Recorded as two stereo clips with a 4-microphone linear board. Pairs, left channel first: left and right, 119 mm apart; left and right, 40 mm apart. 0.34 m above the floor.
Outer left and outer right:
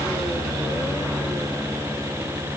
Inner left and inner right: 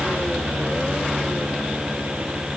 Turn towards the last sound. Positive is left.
No sound to turn to.